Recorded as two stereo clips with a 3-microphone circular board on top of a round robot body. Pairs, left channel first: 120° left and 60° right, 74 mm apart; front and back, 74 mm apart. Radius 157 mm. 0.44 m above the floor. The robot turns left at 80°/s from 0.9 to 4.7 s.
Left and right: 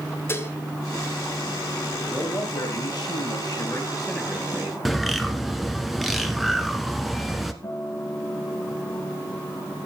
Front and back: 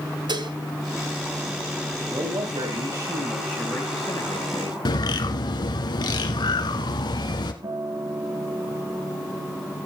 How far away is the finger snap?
I don't hear a finger snap.